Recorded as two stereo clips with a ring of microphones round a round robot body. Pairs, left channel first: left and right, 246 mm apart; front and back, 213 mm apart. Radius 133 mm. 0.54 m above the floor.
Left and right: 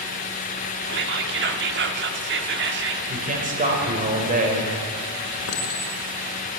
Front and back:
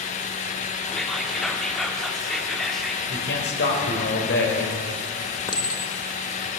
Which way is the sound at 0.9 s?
90° right.